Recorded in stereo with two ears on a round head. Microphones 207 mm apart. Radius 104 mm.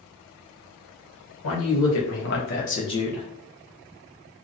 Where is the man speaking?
70° left (ahead or behind), 1.2 m; by 3.2 s centre (ahead or behind), 0.5 m.